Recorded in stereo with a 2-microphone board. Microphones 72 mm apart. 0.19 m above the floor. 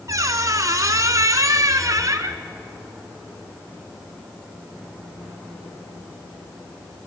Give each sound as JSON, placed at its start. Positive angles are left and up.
{"t": 0.1, "sound": "a squeak", "side_deg": -50, "distance_m": 1.0}